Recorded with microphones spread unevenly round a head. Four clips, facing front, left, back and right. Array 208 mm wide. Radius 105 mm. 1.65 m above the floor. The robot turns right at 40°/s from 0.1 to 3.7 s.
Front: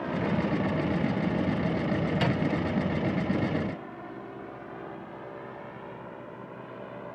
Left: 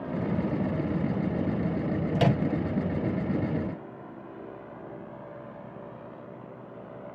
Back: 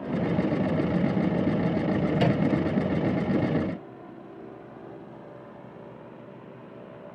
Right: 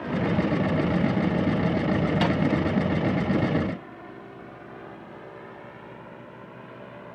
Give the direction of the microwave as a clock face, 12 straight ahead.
8 o'clock.